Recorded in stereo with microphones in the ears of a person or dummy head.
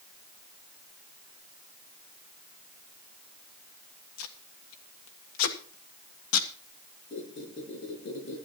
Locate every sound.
4.2 s tape being pulled: 85° left, 1.6 m
7.1 s a squeak: 50° left (ahead or behind), 7 m